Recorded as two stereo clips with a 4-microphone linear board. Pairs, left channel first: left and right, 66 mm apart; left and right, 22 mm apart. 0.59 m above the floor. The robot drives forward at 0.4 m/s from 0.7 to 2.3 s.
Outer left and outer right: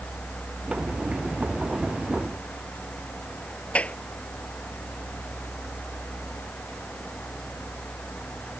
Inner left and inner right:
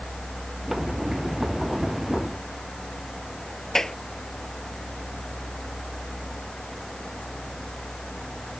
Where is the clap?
20° left (ahead or behind).